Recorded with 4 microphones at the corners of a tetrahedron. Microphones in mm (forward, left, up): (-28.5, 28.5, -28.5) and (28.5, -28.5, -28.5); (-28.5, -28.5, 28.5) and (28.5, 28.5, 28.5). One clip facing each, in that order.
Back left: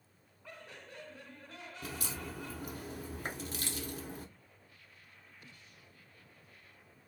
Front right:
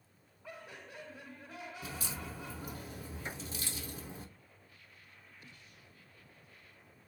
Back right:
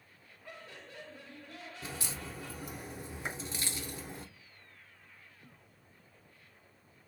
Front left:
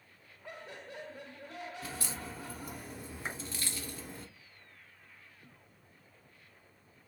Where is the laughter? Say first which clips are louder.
Front right 2 dB, front left 3 dB; 15° left, 1.2 m.